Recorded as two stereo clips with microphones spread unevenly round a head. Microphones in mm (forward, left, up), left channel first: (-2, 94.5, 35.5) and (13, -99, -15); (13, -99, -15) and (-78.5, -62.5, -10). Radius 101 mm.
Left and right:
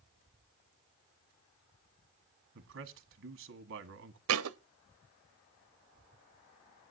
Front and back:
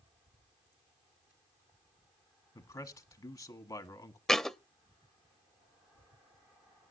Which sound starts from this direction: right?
A thud, at 4.3 s.